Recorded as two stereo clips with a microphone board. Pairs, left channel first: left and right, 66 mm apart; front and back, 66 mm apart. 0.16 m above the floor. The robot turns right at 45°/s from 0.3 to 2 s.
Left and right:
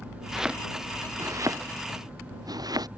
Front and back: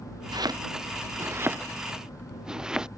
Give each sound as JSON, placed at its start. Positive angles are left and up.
{"t": 0.3, "sound": "chopping", "azimuth_deg": -175}